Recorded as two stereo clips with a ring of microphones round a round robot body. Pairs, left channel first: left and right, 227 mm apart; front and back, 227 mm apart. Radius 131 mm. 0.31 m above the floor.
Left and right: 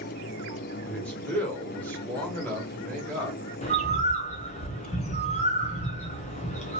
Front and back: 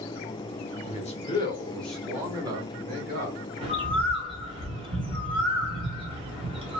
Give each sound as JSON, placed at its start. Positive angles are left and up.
{"t": 0.8, "sound": "a man speaking", "azimuth_deg": 10, "distance_m": 1.2}
{"t": 3.6, "sound": "a bird", "azimuth_deg": 130, "distance_m": 1.0}